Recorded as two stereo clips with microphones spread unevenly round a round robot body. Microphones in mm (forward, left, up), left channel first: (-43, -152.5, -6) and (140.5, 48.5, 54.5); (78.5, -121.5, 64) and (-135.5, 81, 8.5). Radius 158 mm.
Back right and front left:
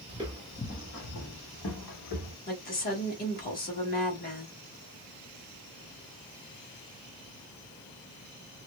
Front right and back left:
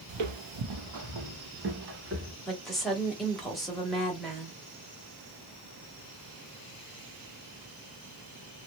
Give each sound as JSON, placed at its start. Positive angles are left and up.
{"t": 0.1, "sound": "footsteps", "azimuth_deg": 115, "distance_m": 0.6}
{"t": 2.5, "sound": "a woman speaking", "azimuth_deg": -145, "distance_m": 1.6}